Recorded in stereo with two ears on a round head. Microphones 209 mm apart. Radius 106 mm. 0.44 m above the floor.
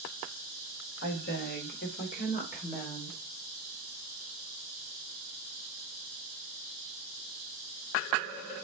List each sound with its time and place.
1.0 s a woman speaking: 50° left (ahead or behind), 1.1 m; by 3.2 s 25° left (ahead or behind), 1.5 m